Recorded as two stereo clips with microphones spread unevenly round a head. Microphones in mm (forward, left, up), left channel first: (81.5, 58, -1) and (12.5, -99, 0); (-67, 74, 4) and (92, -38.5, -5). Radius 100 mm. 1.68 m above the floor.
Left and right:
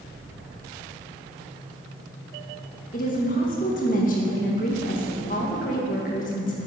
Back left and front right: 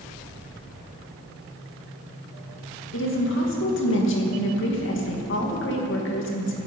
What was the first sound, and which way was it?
A woman speaking, 120° left.